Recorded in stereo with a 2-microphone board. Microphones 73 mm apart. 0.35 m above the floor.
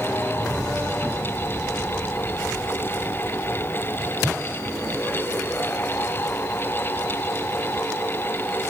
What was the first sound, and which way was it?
Only background noise.